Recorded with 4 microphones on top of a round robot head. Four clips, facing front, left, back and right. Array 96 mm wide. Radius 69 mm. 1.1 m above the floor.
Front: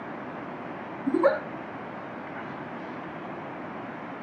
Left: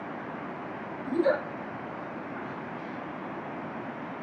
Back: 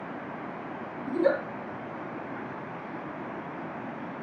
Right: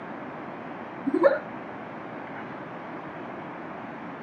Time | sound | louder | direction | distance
1.1 | a giggle | right 5 dB, front 3 dB | 50° right | 2.5 m